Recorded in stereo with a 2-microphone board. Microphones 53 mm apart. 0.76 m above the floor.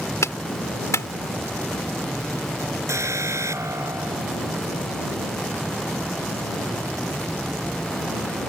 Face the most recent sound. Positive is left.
turn(degrees=-65)  # may be behind; listen again after turning